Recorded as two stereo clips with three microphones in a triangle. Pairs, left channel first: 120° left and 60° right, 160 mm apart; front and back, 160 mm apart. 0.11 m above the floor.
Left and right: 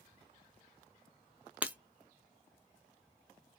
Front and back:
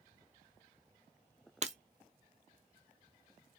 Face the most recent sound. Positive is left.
turn(degrees=-140)